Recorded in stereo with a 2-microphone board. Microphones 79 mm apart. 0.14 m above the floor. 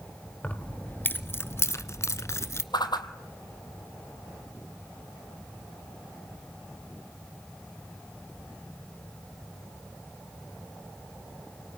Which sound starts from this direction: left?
A whoosh, at 2.7 s.